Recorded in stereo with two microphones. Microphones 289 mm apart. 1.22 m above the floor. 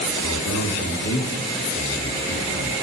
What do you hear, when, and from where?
0.2 s a man speaking: 70° left (ahead or behind), 2.5 m